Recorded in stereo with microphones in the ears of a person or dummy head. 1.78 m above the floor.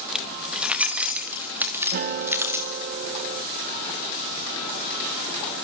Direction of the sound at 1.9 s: 45° right (ahead or behind).